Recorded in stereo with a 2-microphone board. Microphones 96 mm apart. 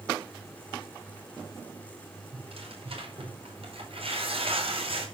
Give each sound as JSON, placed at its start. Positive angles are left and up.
{"t": 2.3, "sound": "tearing paper", "side_deg": -75, "distance_m": 4.5}